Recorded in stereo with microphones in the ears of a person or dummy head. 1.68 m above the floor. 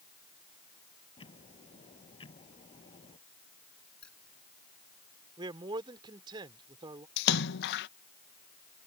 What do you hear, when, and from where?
1.2 s ticking: 35° left (ahead or behind)
4.0 s keys jangling: 5° left (ahead or behind)
5.4 s a man speaking: 30° right (ahead or behind)
7.2 s a splash: 70° left (ahead or behind)